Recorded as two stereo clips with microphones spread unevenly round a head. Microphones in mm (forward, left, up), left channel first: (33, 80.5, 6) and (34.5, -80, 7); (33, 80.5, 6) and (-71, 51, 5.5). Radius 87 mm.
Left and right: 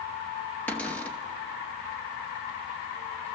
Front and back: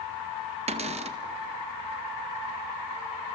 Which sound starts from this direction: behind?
A cupboard door, at 0.7 s.